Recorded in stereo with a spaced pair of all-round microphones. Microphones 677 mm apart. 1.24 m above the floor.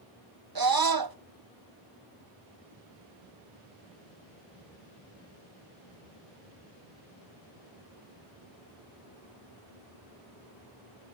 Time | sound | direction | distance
0.6 | a scream | 35° right (ahead or behind) | 0.8 m